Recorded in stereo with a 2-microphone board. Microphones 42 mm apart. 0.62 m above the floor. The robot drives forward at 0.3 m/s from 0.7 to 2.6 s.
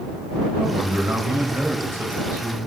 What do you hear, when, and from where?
0.6 s a man speaking: 60° right (ahead or behind), 2.5 m; by 2.6 s 70° right (ahead or behind), 2.5 m